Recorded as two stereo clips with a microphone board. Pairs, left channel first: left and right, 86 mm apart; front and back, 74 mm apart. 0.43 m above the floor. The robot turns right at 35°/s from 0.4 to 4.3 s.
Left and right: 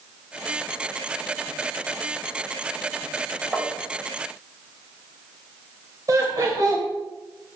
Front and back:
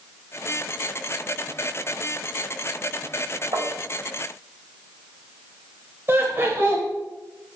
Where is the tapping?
Straight behind, 2.5 m; by 3.7 s 175° right, 2.5 m.